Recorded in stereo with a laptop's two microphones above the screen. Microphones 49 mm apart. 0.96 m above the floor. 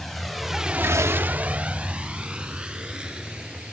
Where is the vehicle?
5° left (ahead or behind); by 3.7 s 15° right (ahead or behind).